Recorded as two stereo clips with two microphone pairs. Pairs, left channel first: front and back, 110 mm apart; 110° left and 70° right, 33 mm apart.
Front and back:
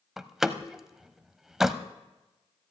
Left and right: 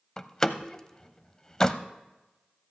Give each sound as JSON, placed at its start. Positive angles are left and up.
{"t": 0.2, "sound": "a door slam", "azimuth_deg": 100, "distance_m": 0.7}